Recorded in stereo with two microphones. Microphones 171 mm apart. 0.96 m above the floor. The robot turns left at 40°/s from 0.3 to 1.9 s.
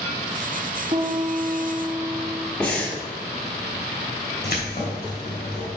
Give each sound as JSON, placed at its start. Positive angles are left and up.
{"t": 0.9, "sound": "a piano", "azimuth_deg": -140, "distance_m": 0.9}
{"t": 2.6, "sound": "breathing", "side_deg": 5, "distance_m": 3.0}
{"t": 4.4, "sound": "keys jangling", "side_deg": 75, "distance_m": 3.0}